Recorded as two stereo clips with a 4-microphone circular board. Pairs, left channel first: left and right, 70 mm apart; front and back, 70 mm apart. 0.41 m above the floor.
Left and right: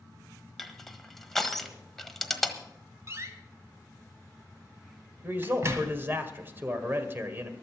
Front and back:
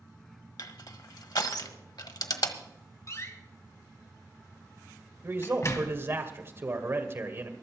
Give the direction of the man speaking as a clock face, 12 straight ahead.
5 o'clock.